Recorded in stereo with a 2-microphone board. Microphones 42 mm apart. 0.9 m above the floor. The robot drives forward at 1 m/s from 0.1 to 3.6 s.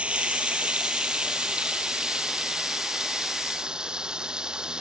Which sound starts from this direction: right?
Running water, at 0.0 s.